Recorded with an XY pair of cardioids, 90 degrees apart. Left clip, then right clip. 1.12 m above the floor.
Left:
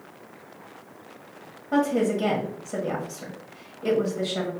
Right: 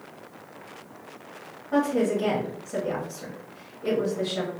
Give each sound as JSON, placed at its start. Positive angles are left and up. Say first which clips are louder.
{"t": 1.7, "sound": "a woman speaking", "louder": "left 1 dB", "azimuth_deg": 50, "distance_m": 1.1}